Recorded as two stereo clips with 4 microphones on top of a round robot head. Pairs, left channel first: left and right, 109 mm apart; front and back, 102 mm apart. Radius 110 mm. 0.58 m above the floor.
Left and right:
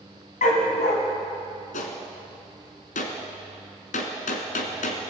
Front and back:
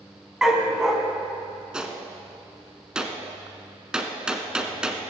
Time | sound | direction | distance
0.4 | a dog barking | 95° left | 1.8 m
1.7 | a gunshot | 100° left | 1.2 m